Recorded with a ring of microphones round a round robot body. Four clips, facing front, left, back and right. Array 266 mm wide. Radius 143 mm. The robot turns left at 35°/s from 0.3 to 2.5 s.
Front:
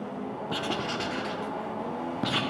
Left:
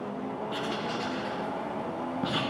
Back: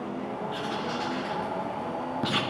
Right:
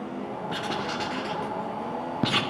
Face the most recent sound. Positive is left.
turn(degrees=-95)